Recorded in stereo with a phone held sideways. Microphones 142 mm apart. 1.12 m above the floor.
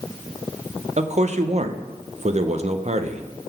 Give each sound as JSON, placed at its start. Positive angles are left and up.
{"t": 1.0, "sound": "a man speaking", "side_deg": -55, "distance_m": 0.5}